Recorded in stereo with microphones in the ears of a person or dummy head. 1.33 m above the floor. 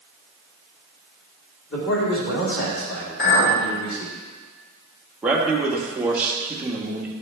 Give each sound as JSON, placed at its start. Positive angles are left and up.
{"t": 1.7, "sound": "a man speaking", "side_deg": 65, "distance_m": 3.5}
{"t": 3.2, "sound": "a clink", "side_deg": 75, "distance_m": 3.5}
{"t": 5.2, "sound": "a man speaking", "side_deg": -5, "distance_m": 1.6}